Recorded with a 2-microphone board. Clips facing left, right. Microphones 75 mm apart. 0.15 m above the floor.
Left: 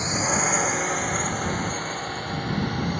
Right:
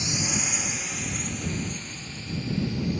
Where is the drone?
40° left (ahead or behind); by 3.0 s 60° left (ahead or behind).